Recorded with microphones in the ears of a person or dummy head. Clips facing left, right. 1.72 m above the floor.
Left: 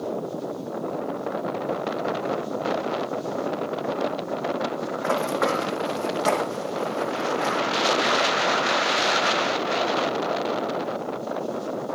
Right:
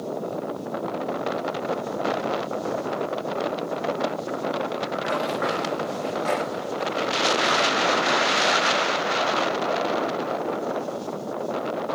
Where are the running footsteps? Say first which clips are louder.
Left 4 dB; 50° left (ahead or behind), 5 m; by 7.6 s 70° left (ahead or behind), 5.5 m.